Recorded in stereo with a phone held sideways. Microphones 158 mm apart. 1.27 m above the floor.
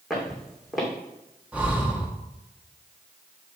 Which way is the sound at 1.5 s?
10° right (ahead or behind).